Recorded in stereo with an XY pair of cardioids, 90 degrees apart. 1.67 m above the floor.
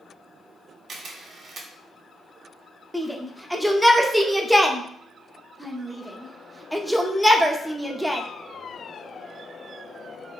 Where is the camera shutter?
60° right, 0.7 m.